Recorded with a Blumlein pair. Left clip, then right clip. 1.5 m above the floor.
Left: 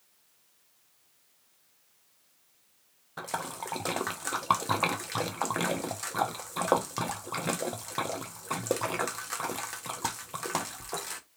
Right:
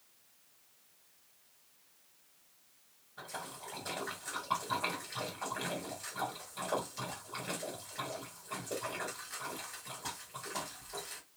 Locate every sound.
3.2 s a splash: 40° left, 0.6 m